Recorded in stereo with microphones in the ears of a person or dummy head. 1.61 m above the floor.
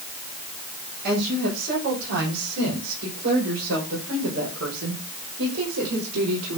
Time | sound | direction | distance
1.0 | a woman speaking | 55° right (ahead or behind) | 7.5 m